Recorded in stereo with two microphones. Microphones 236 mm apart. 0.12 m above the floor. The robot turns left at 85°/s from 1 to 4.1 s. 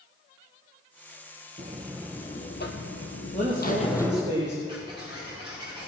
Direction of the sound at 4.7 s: 20° right (ahead or behind).